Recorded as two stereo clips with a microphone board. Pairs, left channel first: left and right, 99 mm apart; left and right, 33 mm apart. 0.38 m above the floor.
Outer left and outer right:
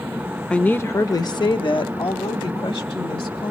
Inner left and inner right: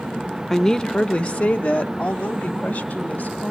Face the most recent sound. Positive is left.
turn(degrees=65)  # may be behind; listen again after turning